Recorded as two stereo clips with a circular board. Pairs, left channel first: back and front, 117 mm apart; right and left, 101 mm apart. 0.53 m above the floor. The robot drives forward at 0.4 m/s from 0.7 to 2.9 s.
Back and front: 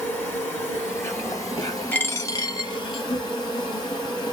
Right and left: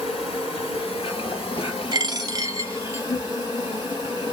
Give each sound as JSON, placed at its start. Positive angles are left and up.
{"t": 0.0, "sound": "an insect", "azimuth_deg": -110, "distance_m": 1.8}
{"t": 1.9, "sound": "a dropped coin", "azimuth_deg": 110, "distance_m": 0.5}